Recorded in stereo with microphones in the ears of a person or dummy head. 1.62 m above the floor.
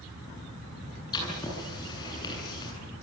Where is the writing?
20° left (ahead or behind), 9.5 m.